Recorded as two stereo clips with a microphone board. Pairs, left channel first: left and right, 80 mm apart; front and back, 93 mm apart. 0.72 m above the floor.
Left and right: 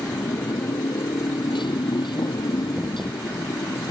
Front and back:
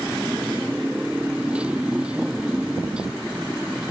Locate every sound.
0.0 s a motorcycle: 105° left; by 3.9 s 100° left